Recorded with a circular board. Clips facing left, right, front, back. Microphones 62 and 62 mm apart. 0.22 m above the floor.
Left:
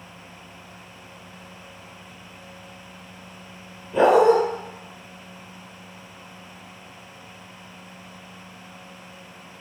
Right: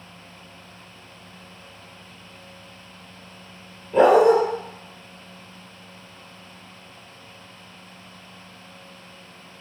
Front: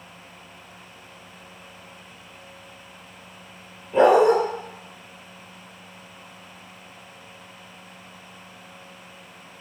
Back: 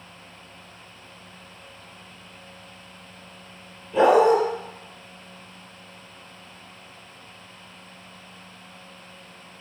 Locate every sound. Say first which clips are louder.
3.9 s a dog barking: right 1 dB, front 1 dB; 50° right, 1.2 m